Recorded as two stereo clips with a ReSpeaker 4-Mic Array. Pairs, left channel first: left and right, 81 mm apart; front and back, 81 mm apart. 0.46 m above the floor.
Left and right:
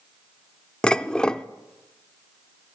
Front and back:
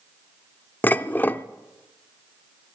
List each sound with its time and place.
0.8 s dishes clattering: 25° left, 0.5 m